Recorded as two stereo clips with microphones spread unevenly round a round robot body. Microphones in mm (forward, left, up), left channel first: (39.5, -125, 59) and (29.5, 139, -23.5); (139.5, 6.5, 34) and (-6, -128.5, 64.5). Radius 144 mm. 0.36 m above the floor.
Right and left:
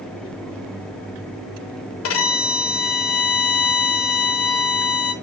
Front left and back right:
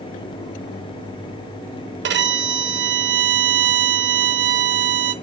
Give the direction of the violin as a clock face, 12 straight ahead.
4 o'clock.